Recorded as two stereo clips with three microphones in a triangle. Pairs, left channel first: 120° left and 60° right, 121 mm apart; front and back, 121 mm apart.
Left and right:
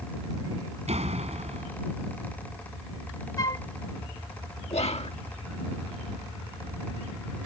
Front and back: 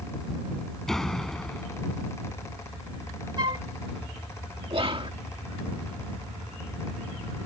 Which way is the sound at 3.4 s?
160° left.